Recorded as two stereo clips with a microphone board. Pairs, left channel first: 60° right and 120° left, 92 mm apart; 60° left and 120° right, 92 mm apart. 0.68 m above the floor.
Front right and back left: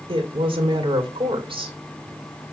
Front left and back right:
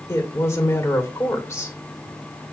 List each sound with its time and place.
0.1 s a woman speaking: 120° left, 2.5 m